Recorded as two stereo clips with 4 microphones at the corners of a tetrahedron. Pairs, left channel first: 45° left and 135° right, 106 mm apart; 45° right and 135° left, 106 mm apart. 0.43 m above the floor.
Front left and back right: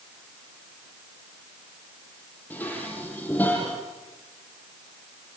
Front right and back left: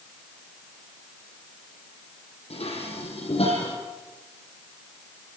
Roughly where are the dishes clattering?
Ahead right.